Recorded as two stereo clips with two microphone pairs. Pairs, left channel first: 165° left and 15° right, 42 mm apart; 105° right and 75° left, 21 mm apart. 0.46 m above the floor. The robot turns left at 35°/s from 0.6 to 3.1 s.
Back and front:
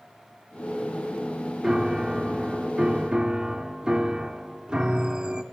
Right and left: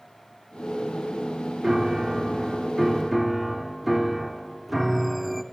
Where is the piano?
40° left, 1.2 m; by 5.4 s 15° right, 1.2 m.